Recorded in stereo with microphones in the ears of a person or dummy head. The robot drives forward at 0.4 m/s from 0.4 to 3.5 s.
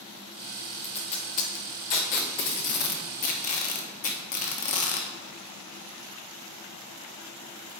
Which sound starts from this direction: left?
Tape being pulled, at 0.8 s.